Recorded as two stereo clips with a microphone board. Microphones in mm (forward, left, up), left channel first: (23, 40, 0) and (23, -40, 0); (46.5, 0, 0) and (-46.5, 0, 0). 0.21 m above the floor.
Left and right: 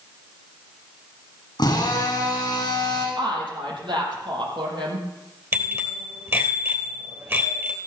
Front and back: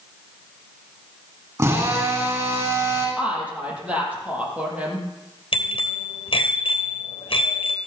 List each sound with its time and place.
1.6 s a drill: 125° left, 10 m
3.2 s a woman speaking: 105° right, 7 m
5.5 s a bicycle bell: 30° right, 3 m